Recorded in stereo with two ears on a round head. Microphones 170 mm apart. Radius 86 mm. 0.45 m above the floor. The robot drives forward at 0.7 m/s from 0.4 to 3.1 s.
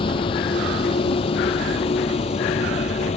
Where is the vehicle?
25° left (ahead or behind); by 3.2 s 30° left (ahead or behind).